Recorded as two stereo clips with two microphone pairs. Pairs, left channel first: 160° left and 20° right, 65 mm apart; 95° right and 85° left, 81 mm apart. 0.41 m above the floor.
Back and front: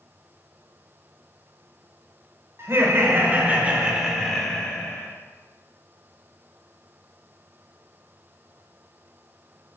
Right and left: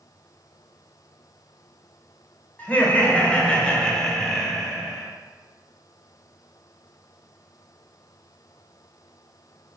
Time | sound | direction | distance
2.6 | laughter | 35° right | 1.6 m